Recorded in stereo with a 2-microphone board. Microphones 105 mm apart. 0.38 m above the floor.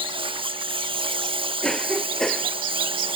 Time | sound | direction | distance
0.0 | a lawn mower | 60° right (ahead or behind) | ?
1.6 | a cough | 5° left (ahead or behind) | ?